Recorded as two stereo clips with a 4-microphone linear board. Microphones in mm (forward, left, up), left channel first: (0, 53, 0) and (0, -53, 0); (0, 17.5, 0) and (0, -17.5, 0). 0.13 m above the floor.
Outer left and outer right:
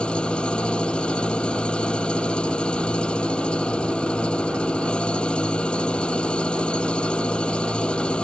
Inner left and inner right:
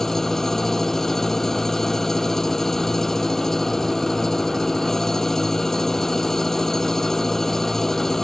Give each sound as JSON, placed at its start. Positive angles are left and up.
{"t": 0.0, "sound": "an engine running", "side_deg": 10}